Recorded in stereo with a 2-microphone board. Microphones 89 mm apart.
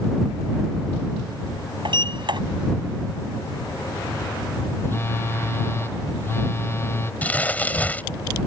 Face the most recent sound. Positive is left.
turn(degrees=20)  # may be behind; listen again after turning